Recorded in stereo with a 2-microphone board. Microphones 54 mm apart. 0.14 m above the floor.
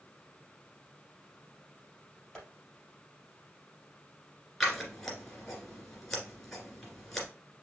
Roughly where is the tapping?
Centre.